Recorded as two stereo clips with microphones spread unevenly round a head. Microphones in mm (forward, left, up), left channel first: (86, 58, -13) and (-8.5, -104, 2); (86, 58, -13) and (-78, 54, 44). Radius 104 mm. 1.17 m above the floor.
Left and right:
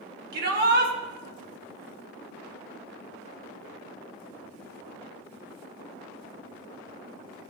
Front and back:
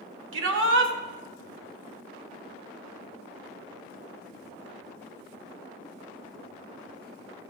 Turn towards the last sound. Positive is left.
turn(degrees=-170)